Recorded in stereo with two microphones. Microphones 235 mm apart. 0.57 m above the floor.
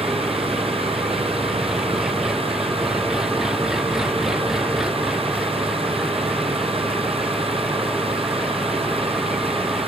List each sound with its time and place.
0.0 s an engine running: centre (ahead or behind)